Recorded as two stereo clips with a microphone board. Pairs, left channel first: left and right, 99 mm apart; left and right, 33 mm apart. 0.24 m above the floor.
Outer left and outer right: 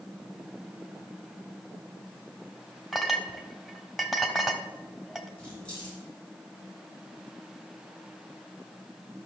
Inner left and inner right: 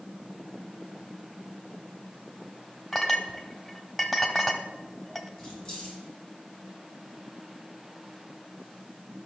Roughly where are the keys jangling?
Centre.